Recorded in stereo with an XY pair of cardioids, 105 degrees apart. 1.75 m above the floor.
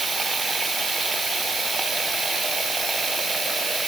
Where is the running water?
30° right.